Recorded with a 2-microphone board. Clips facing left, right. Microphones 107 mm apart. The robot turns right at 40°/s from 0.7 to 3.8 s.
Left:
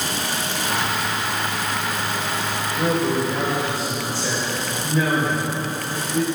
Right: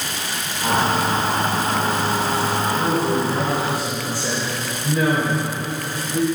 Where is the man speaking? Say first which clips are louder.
Left 2 dB; 150° left, 3.5 m; by 6.2 s 165° right, 3.5 m.